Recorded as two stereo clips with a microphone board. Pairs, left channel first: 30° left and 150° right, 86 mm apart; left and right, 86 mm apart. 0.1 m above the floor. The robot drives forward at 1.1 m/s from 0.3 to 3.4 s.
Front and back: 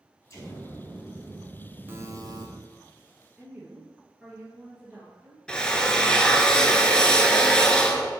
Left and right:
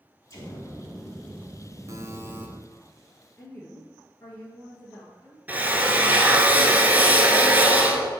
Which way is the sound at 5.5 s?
40° right.